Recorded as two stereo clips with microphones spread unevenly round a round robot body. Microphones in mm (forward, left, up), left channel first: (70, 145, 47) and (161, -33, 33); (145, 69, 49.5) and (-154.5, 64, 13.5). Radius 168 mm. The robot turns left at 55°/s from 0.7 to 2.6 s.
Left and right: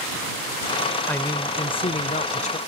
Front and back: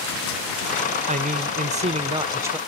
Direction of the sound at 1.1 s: 160° right.